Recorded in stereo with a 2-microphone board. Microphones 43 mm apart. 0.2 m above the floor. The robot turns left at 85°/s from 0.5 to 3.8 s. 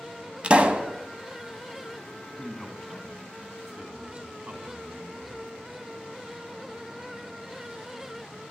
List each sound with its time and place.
0.4 s a pop: 60° right, 0.6 m; by 0.9 s 95° right, 0.6 m
2.4 s a man speaking: 15° left (ahead or behind), 1.7 m; by 5.5 s 30° right (ahead or behind), 1.7 m